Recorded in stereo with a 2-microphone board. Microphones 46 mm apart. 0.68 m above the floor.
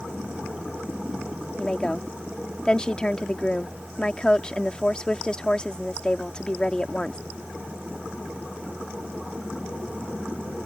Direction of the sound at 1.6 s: 20° left (ahead or behind).